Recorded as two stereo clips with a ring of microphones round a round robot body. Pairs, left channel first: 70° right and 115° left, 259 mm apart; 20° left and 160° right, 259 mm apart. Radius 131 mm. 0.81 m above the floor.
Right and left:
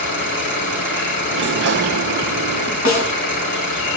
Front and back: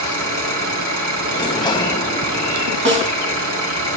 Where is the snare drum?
110° right, 3.5 m.